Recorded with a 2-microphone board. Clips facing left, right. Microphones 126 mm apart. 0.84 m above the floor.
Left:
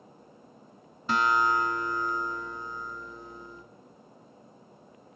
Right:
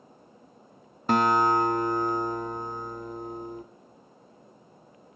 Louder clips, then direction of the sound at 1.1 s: Right 4 dB; 50° right (ahead or behind).